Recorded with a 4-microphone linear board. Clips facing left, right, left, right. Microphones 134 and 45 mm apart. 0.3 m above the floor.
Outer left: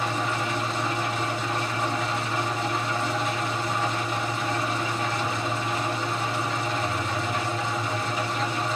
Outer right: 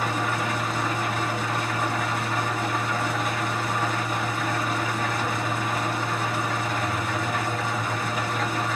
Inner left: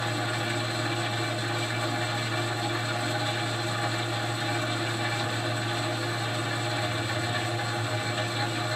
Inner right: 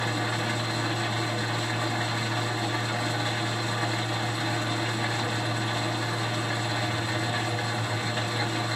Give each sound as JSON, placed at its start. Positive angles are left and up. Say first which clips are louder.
{"t": 0.0, "sound": "an engine running", "louder": "outer right 1 dB, inner right 1 dB", "side_deg": -50, "distance_m": 2.5}